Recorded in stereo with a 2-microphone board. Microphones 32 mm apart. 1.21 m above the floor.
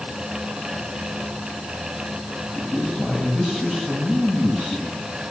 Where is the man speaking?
25° left (ahead or behind), 8 m.